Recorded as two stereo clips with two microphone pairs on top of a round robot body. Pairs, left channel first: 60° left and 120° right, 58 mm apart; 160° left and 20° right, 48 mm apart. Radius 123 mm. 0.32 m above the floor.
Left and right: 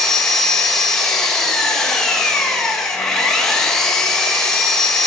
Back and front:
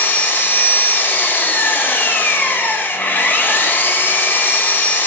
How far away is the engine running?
About 1.3 m.